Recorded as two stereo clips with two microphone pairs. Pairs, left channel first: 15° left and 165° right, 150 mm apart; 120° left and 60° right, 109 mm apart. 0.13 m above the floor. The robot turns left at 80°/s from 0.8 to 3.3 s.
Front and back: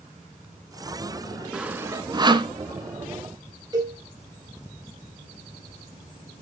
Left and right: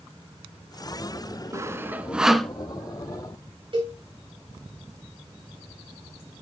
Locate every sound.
1.5 s sawing: 80° right, 0.5 m; by 2.5 s 160° right, 0.5 m
3.7 s a cowbell: 95° right, 4 m